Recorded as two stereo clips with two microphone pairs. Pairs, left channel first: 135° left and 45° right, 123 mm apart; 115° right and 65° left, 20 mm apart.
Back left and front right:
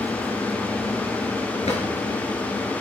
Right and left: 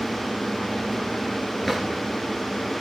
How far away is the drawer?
About 4 m.